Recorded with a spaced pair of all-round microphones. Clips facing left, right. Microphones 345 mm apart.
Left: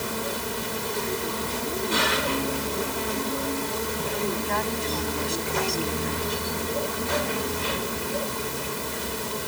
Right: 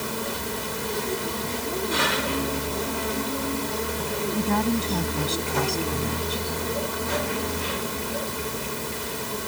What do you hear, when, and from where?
4.3 s a woman speaking: 50° right (ahead or behind)